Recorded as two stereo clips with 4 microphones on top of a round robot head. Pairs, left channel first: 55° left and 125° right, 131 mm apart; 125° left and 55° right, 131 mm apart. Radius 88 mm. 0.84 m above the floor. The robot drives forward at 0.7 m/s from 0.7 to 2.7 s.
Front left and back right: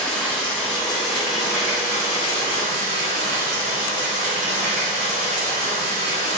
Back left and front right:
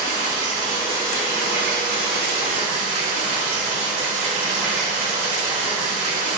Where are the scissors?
No scissors in this recording.